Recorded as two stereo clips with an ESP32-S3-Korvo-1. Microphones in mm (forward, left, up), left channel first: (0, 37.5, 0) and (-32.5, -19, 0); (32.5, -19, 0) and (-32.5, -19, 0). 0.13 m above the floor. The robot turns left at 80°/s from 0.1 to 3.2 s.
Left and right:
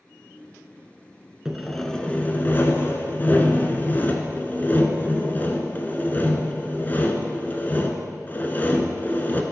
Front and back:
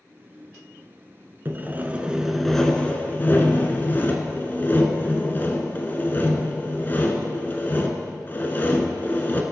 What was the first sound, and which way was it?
Sawing, 165° left.